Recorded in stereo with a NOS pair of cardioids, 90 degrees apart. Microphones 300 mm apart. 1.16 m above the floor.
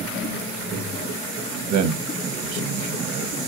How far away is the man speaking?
About 0.6 m.